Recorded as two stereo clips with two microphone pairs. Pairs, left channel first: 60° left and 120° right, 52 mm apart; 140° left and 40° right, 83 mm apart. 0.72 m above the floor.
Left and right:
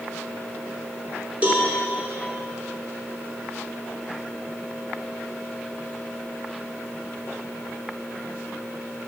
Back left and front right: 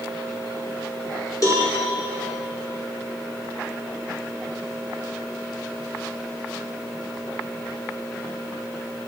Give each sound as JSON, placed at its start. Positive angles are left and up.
{"t": 1.4, "sound": "a cowbell", "azimuth_deg": 180, "distance_m": 2.5}